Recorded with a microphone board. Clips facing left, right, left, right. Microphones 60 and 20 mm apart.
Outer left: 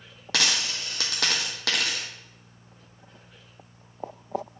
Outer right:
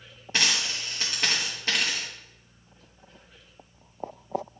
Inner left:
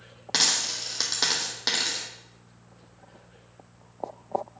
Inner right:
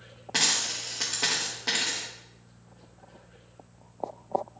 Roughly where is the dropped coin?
Left.